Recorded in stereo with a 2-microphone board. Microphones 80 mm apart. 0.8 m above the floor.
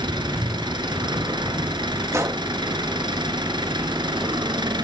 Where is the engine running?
70° right (ahead or behind), 4.5 m.